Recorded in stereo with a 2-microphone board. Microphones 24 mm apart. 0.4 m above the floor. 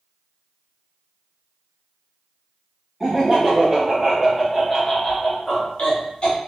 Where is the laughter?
25° right (ahead or behind), 1.4 m; by 6.4 s 50° left (ahead or behind), 1.3 m.